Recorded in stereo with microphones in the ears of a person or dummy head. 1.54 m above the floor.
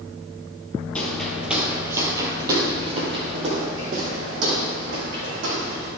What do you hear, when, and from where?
0.9 s footsteps: 5° left (ahead or behind), 2.5 m; by 5.9 s 60° right (ahead or behind), 5 m